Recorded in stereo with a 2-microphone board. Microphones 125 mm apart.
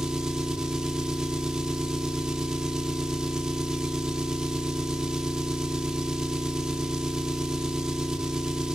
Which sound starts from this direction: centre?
An engine running, at 0.0 s.